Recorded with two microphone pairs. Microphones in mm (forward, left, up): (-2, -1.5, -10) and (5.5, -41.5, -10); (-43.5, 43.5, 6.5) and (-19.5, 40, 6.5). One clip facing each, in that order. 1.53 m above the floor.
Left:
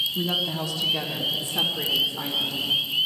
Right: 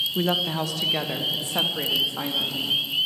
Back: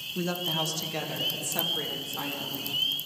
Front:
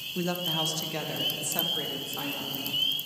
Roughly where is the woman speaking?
Right.